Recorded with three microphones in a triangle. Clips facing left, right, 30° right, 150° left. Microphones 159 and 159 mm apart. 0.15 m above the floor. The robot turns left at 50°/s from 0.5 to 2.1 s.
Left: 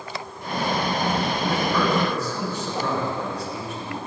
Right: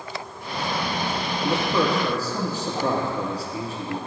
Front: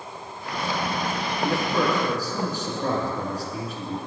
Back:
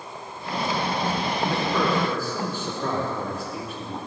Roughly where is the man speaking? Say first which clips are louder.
Right 3 dB, front 2 dB; ahead right.